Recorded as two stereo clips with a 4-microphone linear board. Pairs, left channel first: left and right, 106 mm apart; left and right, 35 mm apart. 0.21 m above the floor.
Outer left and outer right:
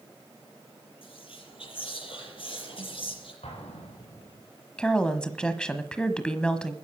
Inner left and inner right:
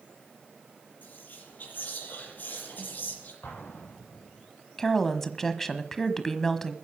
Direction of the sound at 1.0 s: 55° left (ahead or behind).